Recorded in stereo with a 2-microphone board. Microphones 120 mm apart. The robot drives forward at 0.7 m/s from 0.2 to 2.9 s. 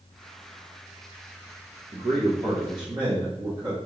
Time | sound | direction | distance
1.9 | a man speaking | 55° right (ahead or behind) | 0.8 m